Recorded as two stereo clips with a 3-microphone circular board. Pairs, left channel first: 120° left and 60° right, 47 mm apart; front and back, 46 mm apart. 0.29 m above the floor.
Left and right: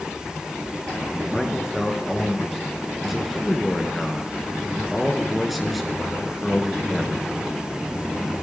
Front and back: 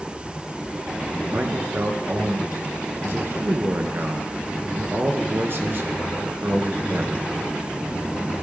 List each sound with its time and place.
1.3 s a man speaking: 150° right, 3 m